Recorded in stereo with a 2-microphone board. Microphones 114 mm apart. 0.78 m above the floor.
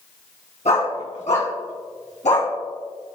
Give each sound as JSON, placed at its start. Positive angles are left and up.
{"t": 0.7, "sound": "a dog barking", "side_deg": 85, "distance_m": 3.5}